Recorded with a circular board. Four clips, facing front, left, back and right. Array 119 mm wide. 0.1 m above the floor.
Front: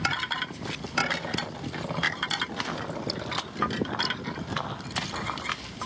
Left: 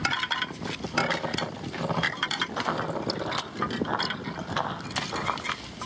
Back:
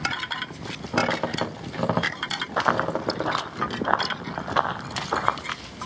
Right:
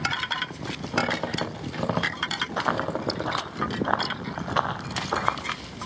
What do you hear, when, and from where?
0.9 s a squeak: 155° right, 3 m
2.6 s running footsteps: 165° right, 0.9 m; by 5.4 s 140° right, 2.5 m